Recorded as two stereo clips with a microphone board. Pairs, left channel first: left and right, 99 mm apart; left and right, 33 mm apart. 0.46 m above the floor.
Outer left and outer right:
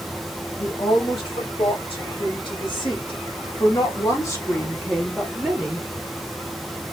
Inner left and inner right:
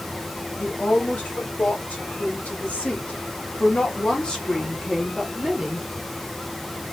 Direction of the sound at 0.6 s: 65° left (ahead or behind).